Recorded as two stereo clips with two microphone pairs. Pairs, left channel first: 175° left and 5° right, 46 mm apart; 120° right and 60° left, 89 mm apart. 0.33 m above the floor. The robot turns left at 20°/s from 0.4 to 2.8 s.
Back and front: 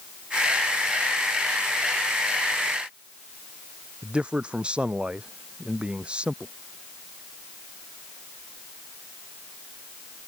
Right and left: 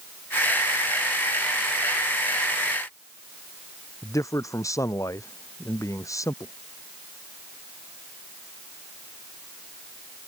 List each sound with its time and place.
4.0 s a man speaking: 70° right